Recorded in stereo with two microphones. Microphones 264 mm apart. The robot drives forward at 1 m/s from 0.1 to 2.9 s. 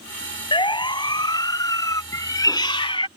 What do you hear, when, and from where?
0.5 s a siren: 20° left (ahead or behind); by 2.0 s 10° left (ahead or behind)
2.1 s a cat meowing: 10° left (ahead or behind); by 3.1 s 20° left (ahead or behind)